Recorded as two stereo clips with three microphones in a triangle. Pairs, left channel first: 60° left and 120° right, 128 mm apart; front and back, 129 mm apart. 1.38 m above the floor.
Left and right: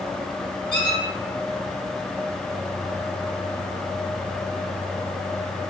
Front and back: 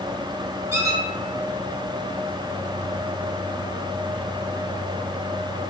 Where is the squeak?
110° left, 1.5 m.